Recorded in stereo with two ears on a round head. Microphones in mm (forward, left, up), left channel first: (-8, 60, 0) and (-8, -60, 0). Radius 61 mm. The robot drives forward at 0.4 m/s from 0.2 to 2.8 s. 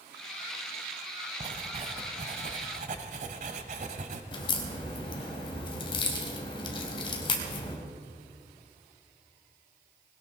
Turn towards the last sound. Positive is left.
turn(degrees=40)  # may be behind; listen again after turning